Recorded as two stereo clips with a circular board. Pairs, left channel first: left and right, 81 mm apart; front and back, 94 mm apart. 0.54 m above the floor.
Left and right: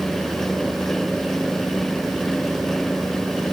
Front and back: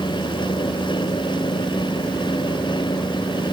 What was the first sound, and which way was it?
Only background noise.